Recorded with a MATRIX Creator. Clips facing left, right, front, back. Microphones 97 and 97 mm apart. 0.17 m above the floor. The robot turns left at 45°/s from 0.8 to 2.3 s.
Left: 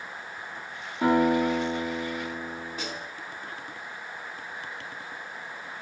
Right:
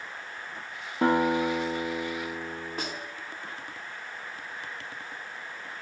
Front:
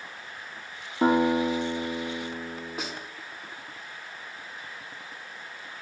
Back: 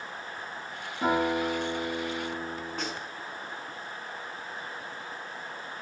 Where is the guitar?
50° right, 4.5 m; by 2.9 s 110° right, 4.5 m.